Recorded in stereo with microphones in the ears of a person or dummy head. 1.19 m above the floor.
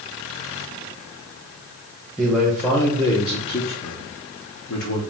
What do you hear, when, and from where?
2.2 s a man speaking: 5° right (ahead or behind), 1.1 m; by 5.0 s 70° left (ahead or behind), 1.2 m